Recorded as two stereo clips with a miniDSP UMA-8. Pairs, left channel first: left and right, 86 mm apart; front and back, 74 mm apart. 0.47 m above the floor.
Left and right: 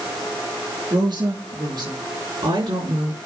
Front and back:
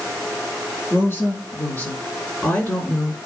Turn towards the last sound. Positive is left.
turn(degrees=-75)